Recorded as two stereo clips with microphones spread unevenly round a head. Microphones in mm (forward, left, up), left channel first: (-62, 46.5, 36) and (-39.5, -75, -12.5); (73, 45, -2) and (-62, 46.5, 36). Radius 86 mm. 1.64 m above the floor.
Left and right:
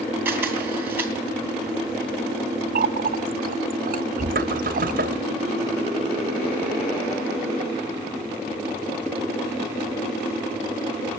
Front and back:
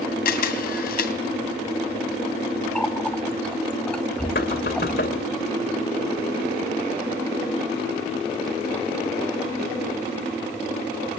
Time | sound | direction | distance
0.2 | a camera shutter | 10° left | 2.5 m
2.8 | a running tap | 90° right | 1.3 m
4.3 | knocking | 35° right | 2.5 m